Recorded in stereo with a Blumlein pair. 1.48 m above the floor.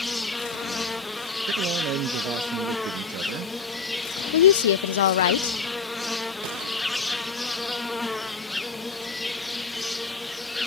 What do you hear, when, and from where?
0.0 s an insect: 5° left
1.5 s a man speaking: 40° right
4.3 s a woman speaking: 60° left